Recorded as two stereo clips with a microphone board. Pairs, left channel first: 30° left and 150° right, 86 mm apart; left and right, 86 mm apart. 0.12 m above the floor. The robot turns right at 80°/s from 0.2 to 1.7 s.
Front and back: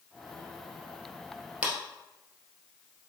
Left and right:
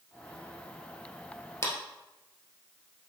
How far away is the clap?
About 1.6 m.